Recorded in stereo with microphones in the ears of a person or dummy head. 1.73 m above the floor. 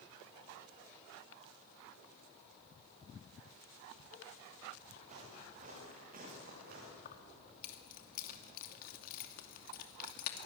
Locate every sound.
5.0 s footsteps: 40° right (ahead or behind), 8.5 m; by 7.0 s 55° right (ahead or behind), 8 m
7.0 s keys jangling: 50° left (ahead or behind), 2.5 m